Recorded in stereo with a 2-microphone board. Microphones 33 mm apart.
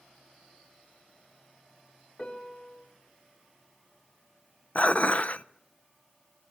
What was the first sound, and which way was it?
A piano, 25° left (ahead or behind).